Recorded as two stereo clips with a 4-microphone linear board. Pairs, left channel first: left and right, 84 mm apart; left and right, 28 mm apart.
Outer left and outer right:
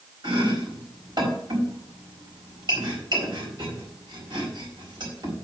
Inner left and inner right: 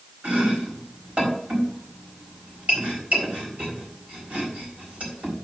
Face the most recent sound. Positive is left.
turn(degrees=-65)  # may be behind; listen again after turning